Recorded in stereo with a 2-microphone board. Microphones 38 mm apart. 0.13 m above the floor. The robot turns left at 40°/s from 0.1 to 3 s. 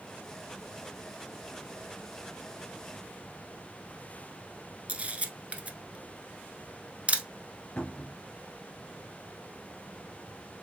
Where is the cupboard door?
20° left (ahead or behind), 1.6 m.